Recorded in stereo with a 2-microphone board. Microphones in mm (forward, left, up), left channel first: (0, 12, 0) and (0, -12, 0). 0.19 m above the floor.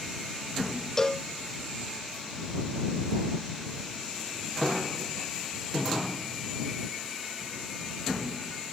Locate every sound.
1.0 s a cowbell: 20° left (ahead or behind)